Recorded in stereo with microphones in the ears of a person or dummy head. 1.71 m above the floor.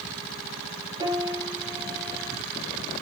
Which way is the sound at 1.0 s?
30° right (ahead or behind).